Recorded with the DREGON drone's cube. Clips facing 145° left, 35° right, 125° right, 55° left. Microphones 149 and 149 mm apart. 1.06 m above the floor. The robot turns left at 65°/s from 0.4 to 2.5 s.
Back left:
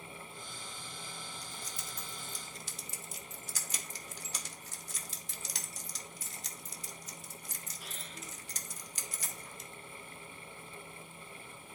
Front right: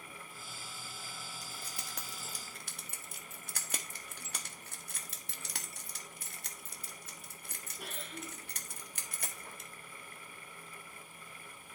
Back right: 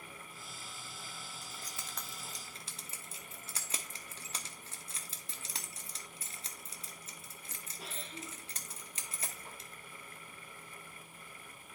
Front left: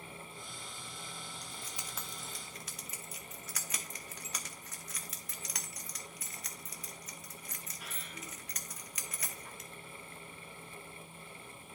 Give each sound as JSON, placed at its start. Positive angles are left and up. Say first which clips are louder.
{"t": 1.4, "sound": "keys jangling", "louder": "back left 1 dB, front left 1 dB", "azimuth_deg": 10, "distance_m": 1.0}